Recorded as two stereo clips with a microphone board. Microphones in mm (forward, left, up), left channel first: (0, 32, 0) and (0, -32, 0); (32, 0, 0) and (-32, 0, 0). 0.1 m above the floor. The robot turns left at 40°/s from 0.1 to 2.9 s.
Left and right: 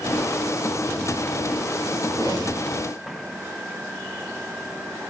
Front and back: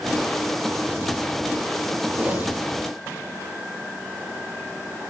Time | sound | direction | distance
2.1 | a whoosh | 110° left | 6.5 m